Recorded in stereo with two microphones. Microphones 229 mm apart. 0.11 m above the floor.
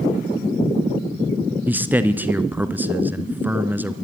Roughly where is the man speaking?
Centre.